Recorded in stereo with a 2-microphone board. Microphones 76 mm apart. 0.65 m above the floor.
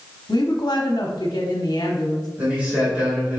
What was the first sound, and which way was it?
A woman speaking, 60° left (ahead or behind).